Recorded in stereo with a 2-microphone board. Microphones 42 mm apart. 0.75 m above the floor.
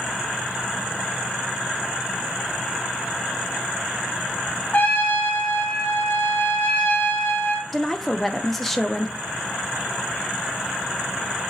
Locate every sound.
4.7 s a trumpet: 45° left (ahead or behind), 0.9 m
7.7 s a woman speaking: 5° left (ahead or behind), 0.6 m